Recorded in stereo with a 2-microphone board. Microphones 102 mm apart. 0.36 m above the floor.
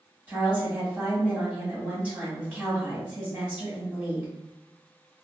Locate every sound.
0.3 s a woman speaking: 15° right (ahead or behind), 1.8 m